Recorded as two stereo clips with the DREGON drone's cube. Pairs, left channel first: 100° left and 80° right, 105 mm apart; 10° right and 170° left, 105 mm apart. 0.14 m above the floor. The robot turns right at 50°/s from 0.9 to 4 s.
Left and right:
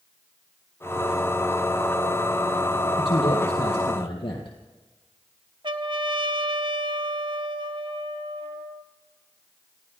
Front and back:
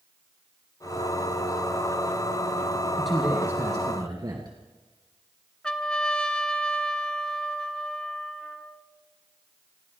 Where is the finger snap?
I don't hear a finger snap.